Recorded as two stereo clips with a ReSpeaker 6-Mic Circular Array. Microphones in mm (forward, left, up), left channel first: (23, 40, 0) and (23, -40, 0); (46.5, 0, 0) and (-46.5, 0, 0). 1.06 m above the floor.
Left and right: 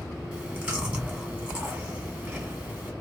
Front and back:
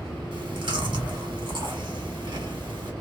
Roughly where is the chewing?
Behind.